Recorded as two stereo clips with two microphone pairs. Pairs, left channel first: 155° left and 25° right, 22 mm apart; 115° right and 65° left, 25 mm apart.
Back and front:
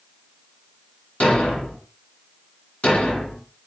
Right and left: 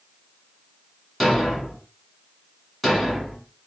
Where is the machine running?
I don't hear a machine running.